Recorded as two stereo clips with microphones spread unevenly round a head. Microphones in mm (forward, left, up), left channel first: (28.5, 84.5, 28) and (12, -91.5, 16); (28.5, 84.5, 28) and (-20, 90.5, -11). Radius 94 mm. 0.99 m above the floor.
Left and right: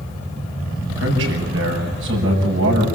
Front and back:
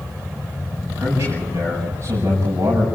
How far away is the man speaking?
About 9 m.